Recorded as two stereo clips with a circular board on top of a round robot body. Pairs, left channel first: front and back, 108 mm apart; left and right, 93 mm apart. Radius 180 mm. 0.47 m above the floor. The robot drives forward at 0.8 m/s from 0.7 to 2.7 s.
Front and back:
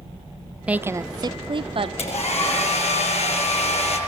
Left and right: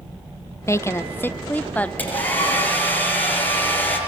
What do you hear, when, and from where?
0.7 s a woman speaking: 115° left, 0.8 m; by 1.9 s 165° left, 1.4 m
2.0 s a hair dryer: 15° left, 7 m; by 4.0 s 20° left, 6.5 m